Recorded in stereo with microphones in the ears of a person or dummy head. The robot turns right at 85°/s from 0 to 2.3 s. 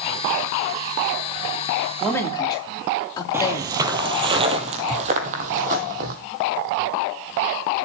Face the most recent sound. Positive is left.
turn(degrees=-50)  # may be behind; listen again after turning